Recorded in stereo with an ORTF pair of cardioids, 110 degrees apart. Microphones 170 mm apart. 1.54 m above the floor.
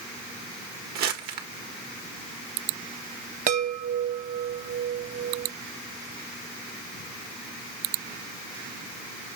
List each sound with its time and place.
0.9 s crumpling: 70° right, 1.6 m
3.5 s a chime: 55° right, 1.2 m